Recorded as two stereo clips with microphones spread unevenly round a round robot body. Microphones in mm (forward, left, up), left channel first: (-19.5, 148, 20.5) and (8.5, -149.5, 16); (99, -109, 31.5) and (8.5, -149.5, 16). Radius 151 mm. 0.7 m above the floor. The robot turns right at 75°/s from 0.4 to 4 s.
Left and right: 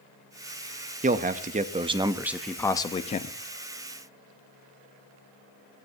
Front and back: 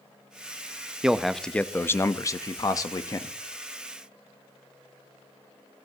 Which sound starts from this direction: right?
A man speaking, at 1.0 s.